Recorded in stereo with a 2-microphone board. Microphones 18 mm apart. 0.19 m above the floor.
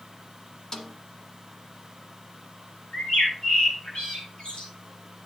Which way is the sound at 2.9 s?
65° left (ahead or behind).